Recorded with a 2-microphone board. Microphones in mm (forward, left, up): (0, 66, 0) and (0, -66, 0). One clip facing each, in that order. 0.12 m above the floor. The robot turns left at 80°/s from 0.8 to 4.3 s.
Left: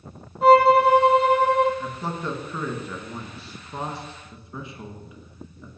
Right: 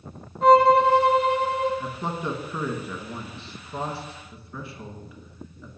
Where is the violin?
175° left, 1.6 m; by 1.7 s 105° left, 1.6 m.